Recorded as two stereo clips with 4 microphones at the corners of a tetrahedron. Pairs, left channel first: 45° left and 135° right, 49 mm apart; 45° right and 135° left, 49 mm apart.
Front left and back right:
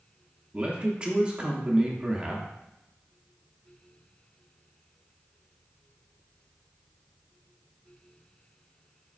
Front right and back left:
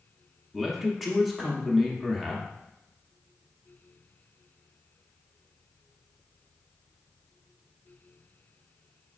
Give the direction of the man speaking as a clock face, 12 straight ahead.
5 o'clock.